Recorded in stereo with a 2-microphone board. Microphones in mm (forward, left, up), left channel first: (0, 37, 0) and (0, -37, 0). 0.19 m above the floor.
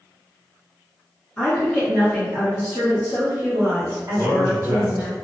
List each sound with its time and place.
1.4 s a woman speaking: 10° left (ahead or behind), 1.9 m; by 5.1 s 50° right (ahead or behind), 1.7 m
4.1 s a man speaking: centre (ahead or behind), 1.6 m